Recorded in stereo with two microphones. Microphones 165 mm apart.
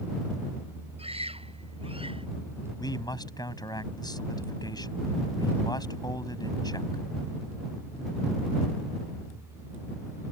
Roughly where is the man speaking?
Left.